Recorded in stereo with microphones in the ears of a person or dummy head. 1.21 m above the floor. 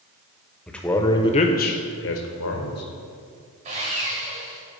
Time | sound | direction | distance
0.7 | a man speaking | centre (ahead or behind) | 0.9 m
3.6 | sawing | 40° right (ahead or behind) | 1.6 m